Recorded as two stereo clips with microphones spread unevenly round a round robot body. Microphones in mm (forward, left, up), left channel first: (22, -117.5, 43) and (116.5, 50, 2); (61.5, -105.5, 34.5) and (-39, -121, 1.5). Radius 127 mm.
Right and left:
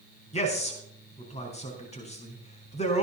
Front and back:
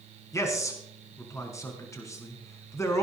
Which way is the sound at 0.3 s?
60° right.